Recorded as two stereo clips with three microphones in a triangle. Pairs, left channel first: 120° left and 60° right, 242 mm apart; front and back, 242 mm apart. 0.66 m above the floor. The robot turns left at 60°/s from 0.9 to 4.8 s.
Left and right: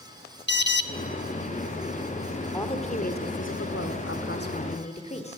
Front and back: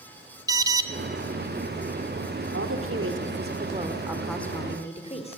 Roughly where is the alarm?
Left.